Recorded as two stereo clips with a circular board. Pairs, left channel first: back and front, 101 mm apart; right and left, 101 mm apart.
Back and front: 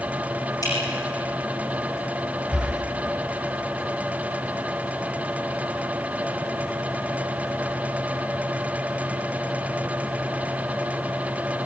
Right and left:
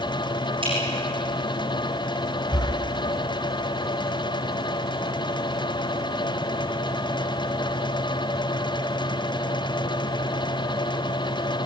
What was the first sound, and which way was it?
Dripping, 125° left.